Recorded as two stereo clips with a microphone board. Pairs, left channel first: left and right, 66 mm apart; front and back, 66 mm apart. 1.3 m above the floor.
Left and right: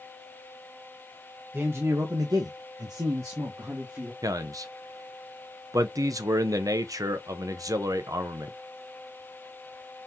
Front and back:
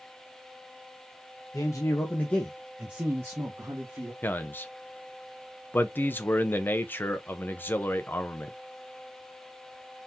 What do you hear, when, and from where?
1.5 s a man speaking: 30° right, 1.3 m; by 4.1 s 145° right, 2 m
4.2 s a man speaking: 60° right, 0.7 m